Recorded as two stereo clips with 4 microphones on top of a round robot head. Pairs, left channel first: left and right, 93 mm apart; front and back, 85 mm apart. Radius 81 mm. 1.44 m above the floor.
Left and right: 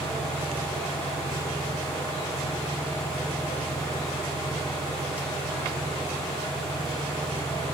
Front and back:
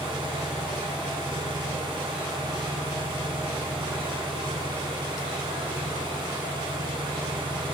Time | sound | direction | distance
0.0 | an engine running | 160° left | 3.5 m